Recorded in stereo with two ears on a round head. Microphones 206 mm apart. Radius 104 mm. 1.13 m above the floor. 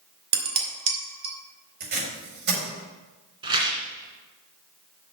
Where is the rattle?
20° right (ahead or behind), 2 m.